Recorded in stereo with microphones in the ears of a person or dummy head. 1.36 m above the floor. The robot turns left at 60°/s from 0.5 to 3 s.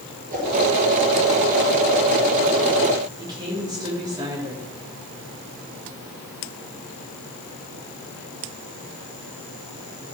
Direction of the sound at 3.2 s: 25° right (ahead or behind).